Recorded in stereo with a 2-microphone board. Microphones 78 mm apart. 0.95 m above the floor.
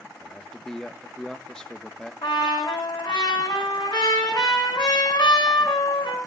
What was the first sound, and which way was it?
A man speaking, 10° left (ahead or behind).